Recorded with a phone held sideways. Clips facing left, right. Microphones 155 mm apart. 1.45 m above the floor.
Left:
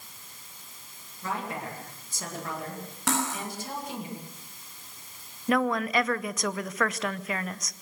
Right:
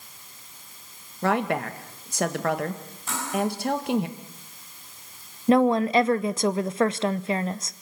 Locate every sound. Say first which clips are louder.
1.2 s a woman speaking: right 10 dB; 70° right (ahead or behind), 2 m
3.1 s cutlery clinking: right 3 dB; 85° left, 7.5 m
5.5 s a woman speaking: right 7 dB; 30° right (ahead or behind), 0.6 m